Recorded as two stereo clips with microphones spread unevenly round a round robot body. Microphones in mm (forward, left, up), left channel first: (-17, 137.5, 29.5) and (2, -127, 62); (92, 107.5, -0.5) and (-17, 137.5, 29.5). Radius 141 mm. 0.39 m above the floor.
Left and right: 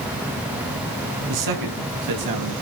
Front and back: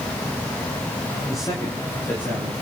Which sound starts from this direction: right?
A man speaking, at 1.3 s.